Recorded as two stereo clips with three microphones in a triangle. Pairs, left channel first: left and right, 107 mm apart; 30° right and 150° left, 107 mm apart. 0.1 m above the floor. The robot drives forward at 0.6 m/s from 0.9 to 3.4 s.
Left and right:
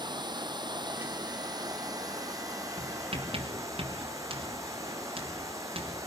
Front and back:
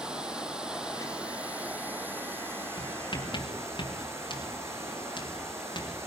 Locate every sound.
0.0 s running water: 130° right, 2.5 m; by 6.1 s 145° right, 4 m
2.8 s writing: 65° right, 4.5 m; by 6.0 s 70° right, 4.5 m